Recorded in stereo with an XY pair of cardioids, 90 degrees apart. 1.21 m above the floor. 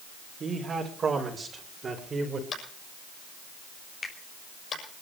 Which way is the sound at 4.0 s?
40° left.